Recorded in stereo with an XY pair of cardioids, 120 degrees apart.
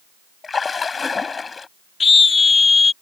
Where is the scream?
25° left.